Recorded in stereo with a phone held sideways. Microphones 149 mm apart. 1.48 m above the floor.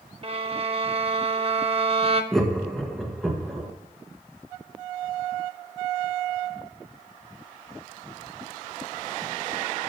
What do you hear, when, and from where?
0.2 s a violin: 40° right (ahead or behind), 0.7 m
2.3 s laughter: centre (ahead or behind), 1.5 m